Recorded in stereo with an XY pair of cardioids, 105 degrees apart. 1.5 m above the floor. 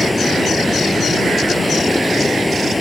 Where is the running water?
10° left.